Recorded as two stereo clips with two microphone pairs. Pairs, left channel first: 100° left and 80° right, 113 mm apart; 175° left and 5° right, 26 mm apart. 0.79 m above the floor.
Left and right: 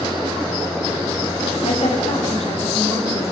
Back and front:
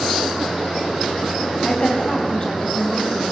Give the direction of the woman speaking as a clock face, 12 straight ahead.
8 o'clock.